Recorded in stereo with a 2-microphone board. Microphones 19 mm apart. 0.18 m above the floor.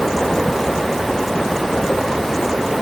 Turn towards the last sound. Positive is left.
No sound to turn to.